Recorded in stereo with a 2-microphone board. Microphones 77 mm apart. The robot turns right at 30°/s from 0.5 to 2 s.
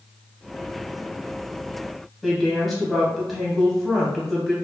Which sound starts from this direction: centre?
A woman speaking, at 2.2 s.